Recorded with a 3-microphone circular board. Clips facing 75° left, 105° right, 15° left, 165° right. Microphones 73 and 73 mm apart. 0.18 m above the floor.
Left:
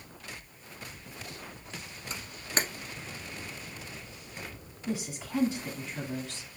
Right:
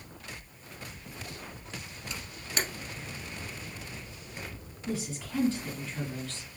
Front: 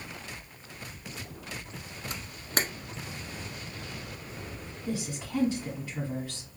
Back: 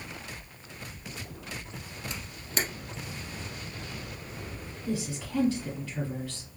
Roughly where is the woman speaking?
Ahead left.